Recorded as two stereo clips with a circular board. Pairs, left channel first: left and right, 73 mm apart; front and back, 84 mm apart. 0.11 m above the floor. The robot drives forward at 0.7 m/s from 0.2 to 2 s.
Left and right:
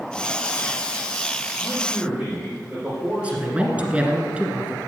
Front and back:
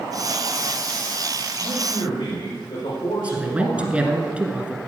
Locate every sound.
1.6 s a man speaking: 15° right, 5 m
3.2 s a man speaking: 130° right, 1.6 m